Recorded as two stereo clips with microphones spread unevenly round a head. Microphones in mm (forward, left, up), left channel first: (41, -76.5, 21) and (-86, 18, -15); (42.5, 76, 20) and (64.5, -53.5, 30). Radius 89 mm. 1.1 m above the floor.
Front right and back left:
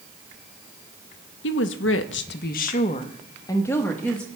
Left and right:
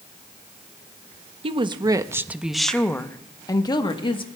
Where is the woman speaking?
35° right, 0.9 m; by 4.3 s 50° left, 1.4 m.